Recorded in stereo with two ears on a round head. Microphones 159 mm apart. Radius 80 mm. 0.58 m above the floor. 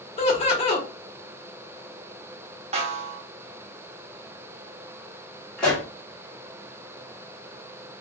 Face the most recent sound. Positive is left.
turn(degrees=5)  # may be behind; listen again after turning